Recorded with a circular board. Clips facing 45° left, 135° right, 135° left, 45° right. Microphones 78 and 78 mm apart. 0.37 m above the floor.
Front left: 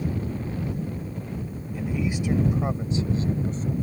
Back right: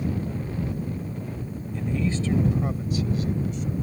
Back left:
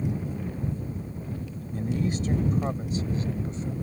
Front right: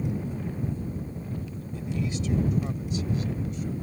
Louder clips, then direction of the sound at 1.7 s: Back right 1 dB, back left 3 dB; 125° left.